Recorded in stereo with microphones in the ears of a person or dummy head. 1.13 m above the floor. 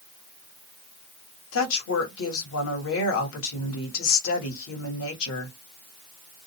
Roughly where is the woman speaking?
Left.